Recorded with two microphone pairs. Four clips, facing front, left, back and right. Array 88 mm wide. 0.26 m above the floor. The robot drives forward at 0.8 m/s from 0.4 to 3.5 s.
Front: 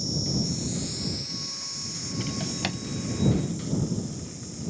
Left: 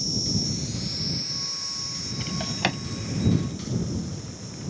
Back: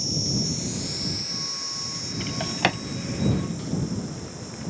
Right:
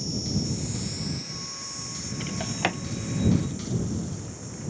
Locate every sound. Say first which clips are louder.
0.0 s an insect: even, even; 160° right; by 4.7 s 175° right
2.2 s a drawer: even, back 6 dB; 175° right; by 2.8 s straight behind